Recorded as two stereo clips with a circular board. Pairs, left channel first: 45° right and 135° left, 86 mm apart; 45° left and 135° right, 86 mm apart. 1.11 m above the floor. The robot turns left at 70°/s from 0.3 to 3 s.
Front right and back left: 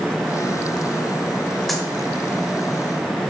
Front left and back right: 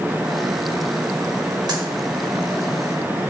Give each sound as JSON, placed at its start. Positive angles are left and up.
{"t": 1.7, "sound": "a dropped coin", "azimuth_deg": -135, "distance_m": 1.3}